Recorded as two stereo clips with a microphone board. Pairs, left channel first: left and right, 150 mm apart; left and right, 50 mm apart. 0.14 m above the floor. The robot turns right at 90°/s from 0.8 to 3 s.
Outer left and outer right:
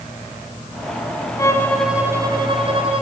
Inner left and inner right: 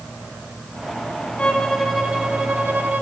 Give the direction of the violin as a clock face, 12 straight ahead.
7 o'clock.